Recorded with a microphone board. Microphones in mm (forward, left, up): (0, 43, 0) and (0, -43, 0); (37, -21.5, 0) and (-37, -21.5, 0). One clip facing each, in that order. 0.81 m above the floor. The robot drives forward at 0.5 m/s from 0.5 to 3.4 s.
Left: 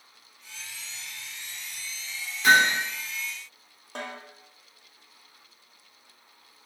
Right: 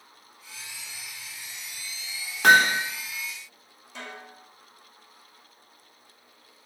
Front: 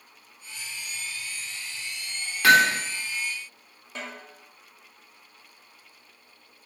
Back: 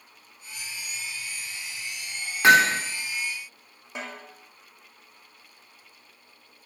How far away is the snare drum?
About 2 m.